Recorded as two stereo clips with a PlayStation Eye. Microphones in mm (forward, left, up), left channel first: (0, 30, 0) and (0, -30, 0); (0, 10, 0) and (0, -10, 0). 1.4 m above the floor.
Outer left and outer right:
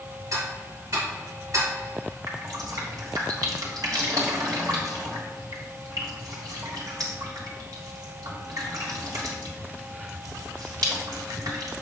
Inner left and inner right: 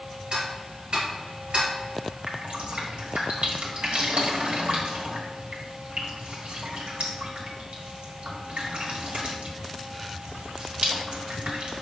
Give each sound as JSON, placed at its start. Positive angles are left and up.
{"t": 0.3, "sound": "ticking", "side_deg": -60, "distance_m": 1.9}
{"t": 2.3, "sound": "dripping", "side_deg": -85, "distance_m": 1.7}